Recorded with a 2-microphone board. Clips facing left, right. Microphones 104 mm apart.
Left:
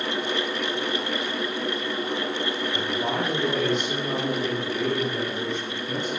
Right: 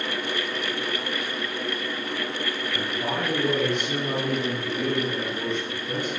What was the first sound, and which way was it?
A man speaking, 10° left (ahead or behind).